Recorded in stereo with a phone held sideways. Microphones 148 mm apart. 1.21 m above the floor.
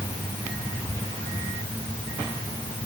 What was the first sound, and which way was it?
Only background noise.